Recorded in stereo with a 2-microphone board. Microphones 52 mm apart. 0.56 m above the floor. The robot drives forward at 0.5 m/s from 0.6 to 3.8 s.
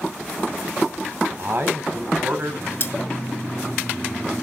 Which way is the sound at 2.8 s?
45° left (ahead or behind).